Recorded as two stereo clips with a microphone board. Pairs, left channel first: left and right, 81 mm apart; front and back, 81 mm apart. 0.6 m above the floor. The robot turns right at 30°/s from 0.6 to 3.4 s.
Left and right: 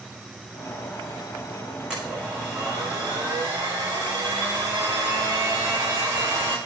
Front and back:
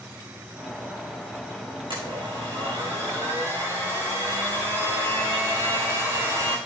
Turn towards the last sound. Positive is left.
turn(degrees=-125)